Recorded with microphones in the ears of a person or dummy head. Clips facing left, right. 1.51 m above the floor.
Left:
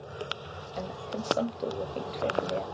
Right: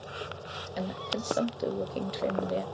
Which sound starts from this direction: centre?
A woman speaking, at 0.8 s.